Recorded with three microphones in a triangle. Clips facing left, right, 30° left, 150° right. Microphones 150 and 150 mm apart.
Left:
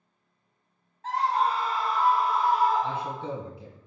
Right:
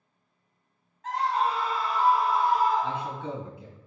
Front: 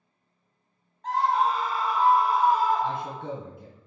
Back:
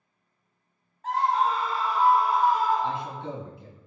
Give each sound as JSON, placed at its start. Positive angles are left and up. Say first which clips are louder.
{"t": 1.0, "sound": "a scream", "louder": "left 1 dB, even", "azimuth_deg": 125, "distance_m": 1.3}
{"t": 2.8, "sound": "a man speaking", "louder": "even, even", "azimuth_deg": 40, "distance_m": 1.8}